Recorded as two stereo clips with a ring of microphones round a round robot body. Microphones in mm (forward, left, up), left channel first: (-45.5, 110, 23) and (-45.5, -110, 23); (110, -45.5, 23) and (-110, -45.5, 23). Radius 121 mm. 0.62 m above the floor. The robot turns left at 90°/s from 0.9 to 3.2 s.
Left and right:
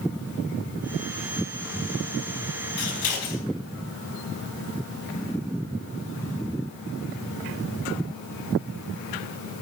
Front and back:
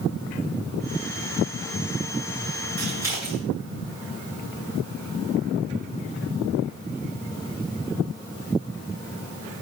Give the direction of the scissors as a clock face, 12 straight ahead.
8 o'clock.